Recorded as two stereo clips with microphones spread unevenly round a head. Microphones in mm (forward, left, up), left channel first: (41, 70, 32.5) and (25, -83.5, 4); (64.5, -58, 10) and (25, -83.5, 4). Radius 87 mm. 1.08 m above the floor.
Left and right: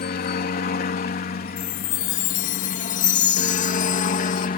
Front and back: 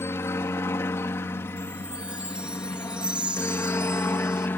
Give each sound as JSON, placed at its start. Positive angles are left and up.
{"t": 0.0, "sound": "a helicopter", "azimuth_deg": 70}
{"t": 1.6, "sound": "a chime", "azimuth_deg": 135}